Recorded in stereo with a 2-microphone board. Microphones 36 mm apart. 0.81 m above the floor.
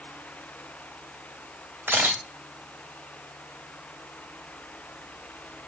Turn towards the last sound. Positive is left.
turn(degrees=-75)  # may be behind; listen again after turning